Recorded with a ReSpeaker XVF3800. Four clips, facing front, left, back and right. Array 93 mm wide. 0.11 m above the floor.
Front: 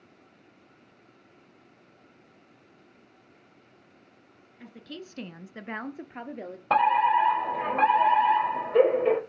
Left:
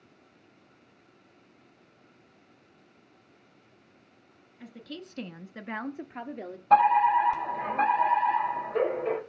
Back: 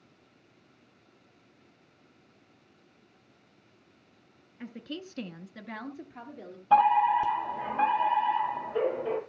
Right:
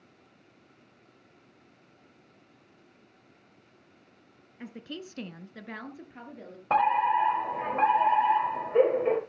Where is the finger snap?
No finger snap in this recording.